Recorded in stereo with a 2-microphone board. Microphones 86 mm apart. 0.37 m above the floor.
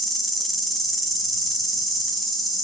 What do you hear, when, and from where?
0.0 s an insect: centre (ahead or behind), 1.9 m